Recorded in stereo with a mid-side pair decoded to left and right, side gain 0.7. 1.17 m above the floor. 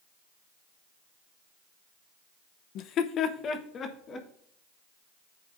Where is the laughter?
55° left, 0.7 m; by 4.3 s 30° left, 1.7 m.